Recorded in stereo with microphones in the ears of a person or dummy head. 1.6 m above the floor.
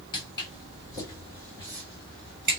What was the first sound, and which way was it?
Footsteps, 30° left (ahead or behind).